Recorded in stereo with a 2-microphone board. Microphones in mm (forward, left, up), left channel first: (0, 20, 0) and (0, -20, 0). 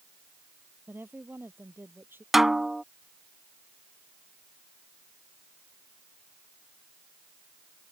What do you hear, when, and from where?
0.9 s a woman speaking: 60° right (ahead or behind); by 2.2 s 65° right (ahead or behind)
2.3 s a snare drum: 5° right (ahead or behind)